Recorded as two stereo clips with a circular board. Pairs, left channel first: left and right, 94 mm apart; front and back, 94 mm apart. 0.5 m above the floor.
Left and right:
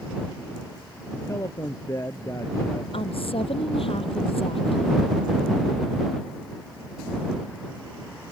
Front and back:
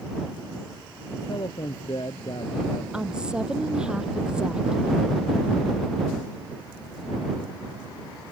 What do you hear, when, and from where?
1.1 s a man speaking: 35° left
2.9 s a woman speaking: 100° left